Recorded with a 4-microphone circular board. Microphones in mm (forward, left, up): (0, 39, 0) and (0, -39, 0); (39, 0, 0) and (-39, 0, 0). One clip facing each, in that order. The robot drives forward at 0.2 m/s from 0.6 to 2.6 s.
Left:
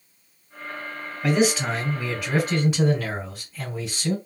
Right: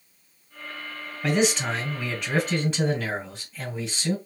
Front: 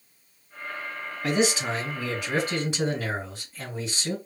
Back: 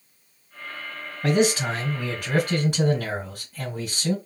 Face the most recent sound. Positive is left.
turn(degrees=175)